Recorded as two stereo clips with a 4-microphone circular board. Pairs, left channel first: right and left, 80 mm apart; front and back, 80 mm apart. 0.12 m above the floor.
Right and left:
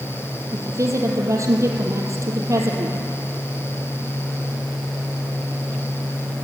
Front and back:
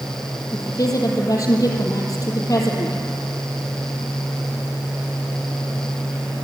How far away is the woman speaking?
About 3.5 m.